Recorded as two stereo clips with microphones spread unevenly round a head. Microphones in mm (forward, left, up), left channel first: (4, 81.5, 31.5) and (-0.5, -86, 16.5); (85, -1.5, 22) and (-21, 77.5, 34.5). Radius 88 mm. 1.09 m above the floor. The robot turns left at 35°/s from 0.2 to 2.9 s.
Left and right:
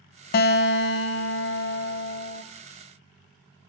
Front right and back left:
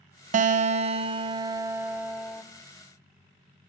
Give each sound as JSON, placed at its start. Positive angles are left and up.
{"t": 0.3, "sound": "a guitar", "azimuth_deg": 120, "distance_m": 0.5}